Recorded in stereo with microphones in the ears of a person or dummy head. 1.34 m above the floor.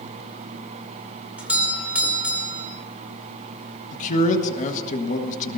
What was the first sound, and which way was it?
A doorbell, 10° right (ahead or behind).